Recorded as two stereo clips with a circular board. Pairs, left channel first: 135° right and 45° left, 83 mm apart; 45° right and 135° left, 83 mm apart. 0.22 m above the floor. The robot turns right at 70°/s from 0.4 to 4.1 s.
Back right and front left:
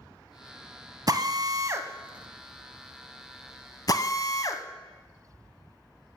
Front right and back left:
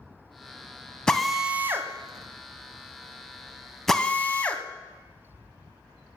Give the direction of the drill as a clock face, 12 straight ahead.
11 o'clock.